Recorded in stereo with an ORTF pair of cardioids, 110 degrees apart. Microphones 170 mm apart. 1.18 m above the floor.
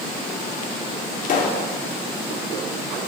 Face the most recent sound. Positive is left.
turn(degrees=55)